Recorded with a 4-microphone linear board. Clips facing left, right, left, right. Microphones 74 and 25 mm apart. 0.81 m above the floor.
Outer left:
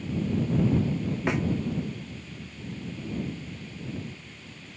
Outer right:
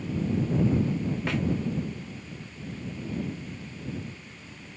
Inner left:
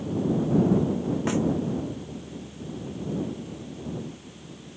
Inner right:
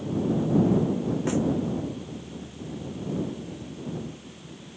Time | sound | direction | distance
1.3 | a snare drum | 20° left (ahead or behind) | ?